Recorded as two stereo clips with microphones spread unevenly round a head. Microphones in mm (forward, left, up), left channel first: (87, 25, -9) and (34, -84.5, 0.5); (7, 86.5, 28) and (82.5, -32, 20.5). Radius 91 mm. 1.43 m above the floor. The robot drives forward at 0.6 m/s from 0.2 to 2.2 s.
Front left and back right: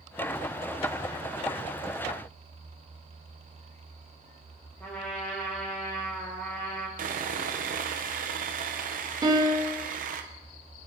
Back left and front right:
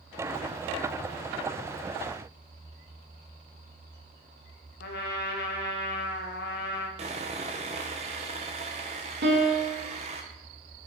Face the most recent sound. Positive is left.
turn(degrees=-60)